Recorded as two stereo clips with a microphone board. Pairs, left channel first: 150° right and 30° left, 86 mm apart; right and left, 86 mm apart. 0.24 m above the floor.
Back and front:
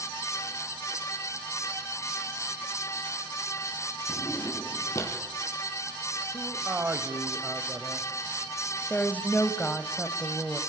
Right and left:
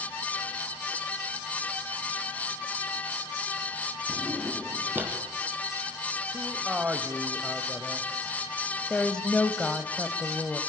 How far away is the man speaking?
About 1.2 m.